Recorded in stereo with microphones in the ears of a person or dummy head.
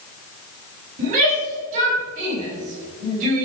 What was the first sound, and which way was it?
A shout, 40° right (ahead or behind).